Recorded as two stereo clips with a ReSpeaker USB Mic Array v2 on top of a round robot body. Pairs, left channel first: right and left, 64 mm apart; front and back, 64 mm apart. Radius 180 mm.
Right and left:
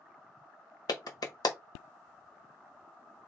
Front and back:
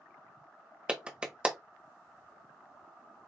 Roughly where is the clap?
Right.